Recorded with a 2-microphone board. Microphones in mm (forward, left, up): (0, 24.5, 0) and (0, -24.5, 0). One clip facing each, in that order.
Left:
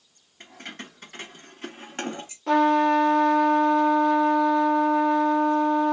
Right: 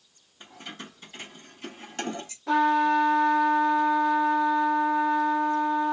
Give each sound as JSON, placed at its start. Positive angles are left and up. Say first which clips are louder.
{"t": 0.4, "sound": "keys jangling", "louder": "left 2 dB", "side_deg": 65, "distance_m": 1.8}
{"t": 2.5, "sound": "a trumpet", "louder": "left 2 dB", "side_deg": 75, "distance_m": 1.5}